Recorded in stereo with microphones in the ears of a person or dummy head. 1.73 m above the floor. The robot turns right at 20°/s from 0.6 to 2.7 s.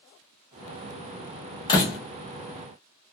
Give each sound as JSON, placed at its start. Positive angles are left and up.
{"t": 1.7, "sound": "a door slam", "side_deg": 20, "distance_m": 1.2}